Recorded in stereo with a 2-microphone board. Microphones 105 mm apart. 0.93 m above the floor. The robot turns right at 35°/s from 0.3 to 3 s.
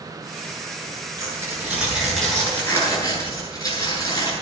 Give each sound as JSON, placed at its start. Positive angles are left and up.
{"t": 1.2, "sound": "tearing paper", "azimuth_deg": -30, "distance_m": 9.0}